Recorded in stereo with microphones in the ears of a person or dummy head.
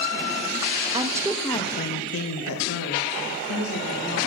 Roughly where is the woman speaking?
Right.